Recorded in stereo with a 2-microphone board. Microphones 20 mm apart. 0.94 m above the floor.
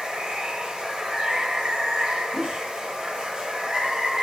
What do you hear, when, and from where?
0.0 s running water: 45° right (ahead or behind), 0.8 m
2.3 s a whoosh: centre (ahead or behind), 0.7 m